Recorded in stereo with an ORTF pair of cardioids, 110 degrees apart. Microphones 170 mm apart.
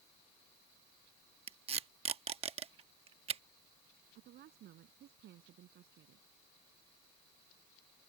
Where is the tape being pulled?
35° right.